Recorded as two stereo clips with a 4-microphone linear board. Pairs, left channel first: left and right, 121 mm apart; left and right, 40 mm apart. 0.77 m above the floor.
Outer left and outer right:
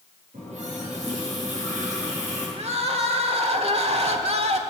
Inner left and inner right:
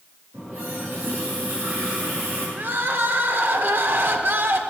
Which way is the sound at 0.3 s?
65° right (ahead or behind).